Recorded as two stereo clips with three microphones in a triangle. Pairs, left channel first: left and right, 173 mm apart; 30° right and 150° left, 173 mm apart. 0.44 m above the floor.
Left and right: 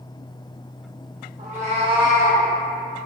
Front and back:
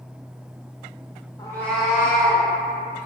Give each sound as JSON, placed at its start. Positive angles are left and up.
{"t": 1.4, "sound": "a cat meowing", "azimuth_deg": -95, "distance_m": 0.6}